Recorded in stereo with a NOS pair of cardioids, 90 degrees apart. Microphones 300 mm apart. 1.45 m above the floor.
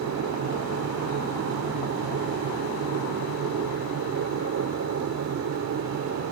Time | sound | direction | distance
0.0 | a machine running | 60° right | ?